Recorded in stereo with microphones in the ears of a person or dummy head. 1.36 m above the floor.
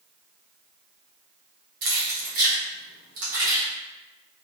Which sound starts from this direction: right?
Keys jangling, at 1.8 s.